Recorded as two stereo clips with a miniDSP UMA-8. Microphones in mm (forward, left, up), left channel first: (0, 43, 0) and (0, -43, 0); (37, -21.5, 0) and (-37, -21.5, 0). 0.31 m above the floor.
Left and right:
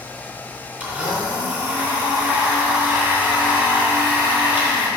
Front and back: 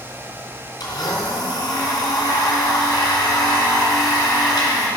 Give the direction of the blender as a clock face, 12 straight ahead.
1 o'clock.